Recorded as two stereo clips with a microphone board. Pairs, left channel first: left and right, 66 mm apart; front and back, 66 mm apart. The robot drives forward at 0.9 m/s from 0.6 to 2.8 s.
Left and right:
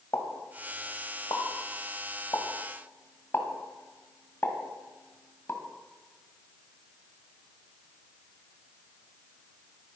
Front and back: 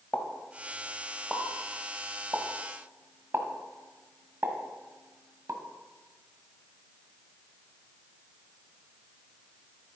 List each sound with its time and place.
0.1 s a pop: 60° left, 1.6 m; by 5.6 s 135° left, 1.9 m